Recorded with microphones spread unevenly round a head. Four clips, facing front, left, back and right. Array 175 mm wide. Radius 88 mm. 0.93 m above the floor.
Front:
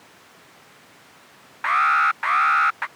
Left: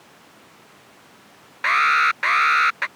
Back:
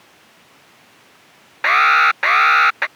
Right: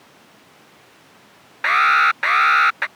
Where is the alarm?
Straight behind.